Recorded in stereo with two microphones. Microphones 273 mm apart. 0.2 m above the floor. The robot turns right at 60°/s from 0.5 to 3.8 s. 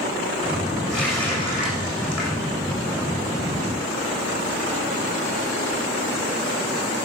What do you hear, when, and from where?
0.9 s a running tap: 15° right, 8 m; by 2.5 s 80° left, 8 m